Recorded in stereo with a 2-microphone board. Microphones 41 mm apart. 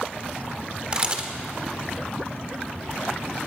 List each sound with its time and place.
0.9 s a camera shutter: 25° right (ahead or behind), 1.4 m